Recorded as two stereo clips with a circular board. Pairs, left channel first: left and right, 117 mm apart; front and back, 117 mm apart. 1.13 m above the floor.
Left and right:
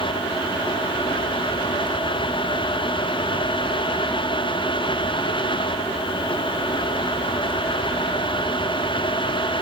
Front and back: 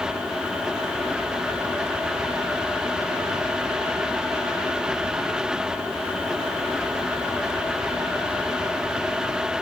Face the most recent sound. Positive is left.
No sound to turn to.